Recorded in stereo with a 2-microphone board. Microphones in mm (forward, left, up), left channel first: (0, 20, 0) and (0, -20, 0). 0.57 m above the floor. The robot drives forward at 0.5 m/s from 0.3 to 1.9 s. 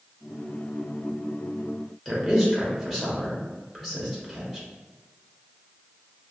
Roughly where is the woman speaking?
Centre.